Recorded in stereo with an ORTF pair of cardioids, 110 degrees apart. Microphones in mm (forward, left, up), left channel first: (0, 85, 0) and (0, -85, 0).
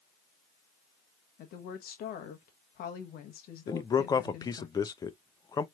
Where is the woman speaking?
65° left, 1.1 m.